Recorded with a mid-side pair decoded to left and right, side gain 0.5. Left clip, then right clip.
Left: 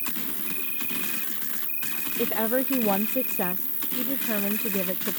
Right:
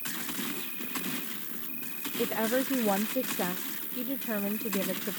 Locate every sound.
0.0 s an insect: 50° left
2.2 s a woman speaking: 15° left